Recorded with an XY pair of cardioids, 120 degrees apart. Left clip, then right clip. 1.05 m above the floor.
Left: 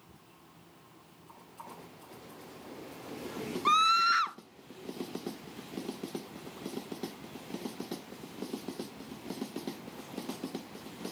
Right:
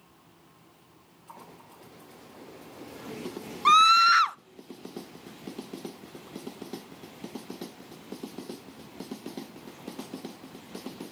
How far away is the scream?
About 0.5 m.